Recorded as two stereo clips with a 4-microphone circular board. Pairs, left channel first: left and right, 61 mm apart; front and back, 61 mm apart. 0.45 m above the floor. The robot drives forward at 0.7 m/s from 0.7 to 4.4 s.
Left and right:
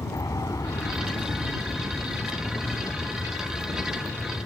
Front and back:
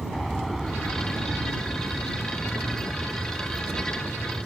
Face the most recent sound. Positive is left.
turn(degrees=100)